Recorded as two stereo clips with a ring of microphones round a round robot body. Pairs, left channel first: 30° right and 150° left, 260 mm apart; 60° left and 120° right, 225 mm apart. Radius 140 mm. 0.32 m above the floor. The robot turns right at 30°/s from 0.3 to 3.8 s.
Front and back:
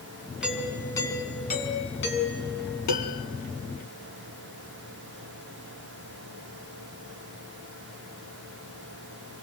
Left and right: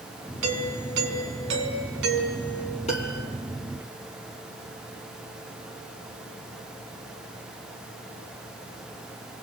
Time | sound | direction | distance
0.4 | a doorbell | 125° right | 6 m
2.9 | a piano | 10° right | 3 m